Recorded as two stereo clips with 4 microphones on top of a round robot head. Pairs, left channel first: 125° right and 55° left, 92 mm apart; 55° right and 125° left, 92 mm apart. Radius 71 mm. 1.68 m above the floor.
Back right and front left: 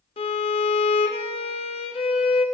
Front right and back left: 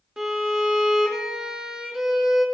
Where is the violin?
150° right, 0.5 m.